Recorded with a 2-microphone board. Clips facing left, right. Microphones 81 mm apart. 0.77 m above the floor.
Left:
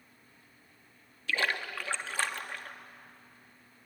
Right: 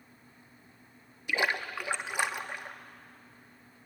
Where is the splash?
15° right (ahead or behind), 1.0 m.